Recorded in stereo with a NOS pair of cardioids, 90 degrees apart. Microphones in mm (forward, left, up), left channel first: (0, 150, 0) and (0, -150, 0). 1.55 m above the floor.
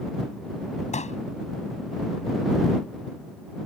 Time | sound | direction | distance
0.9 | a pop | 25° left | ?